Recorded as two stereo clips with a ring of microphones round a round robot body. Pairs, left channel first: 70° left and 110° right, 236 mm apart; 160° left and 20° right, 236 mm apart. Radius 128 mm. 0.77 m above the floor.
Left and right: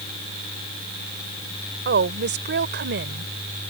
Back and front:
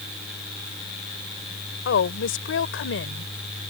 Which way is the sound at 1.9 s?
160° right.